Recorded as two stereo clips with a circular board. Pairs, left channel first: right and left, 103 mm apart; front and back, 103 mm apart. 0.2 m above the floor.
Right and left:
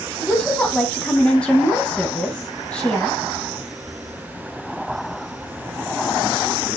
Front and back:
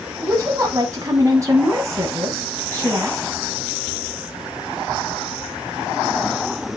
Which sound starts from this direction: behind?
A woman speaking, at 0.2 s.